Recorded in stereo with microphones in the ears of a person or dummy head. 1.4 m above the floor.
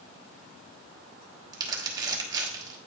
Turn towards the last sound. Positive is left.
turn(degrees=-15)  # may be behind; listen again after turning